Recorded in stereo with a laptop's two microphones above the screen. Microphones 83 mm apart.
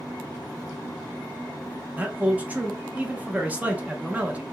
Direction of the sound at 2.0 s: 20° right (ahead or behind).